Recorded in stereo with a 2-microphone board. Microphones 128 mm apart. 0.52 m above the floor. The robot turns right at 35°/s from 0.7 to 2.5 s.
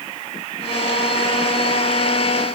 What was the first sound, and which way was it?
Only background noise.